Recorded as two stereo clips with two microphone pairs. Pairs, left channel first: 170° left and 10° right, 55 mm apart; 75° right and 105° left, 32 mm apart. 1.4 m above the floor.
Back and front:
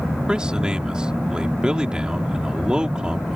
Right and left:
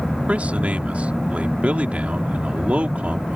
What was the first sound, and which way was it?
A man speaking, 60° left.